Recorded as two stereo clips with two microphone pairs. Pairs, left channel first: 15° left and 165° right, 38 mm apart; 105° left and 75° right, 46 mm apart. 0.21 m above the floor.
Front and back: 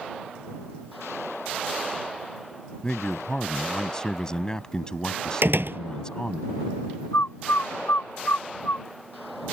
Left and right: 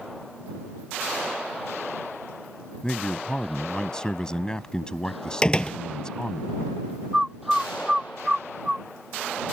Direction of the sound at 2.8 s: 55° left.